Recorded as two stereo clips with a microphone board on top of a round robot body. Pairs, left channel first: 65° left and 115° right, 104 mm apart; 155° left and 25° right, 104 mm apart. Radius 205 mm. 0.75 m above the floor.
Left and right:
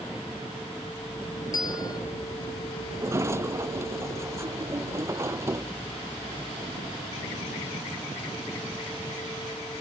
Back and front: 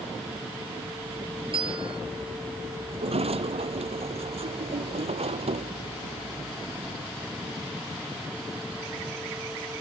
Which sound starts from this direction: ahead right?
A sliding door, at 2.9 s.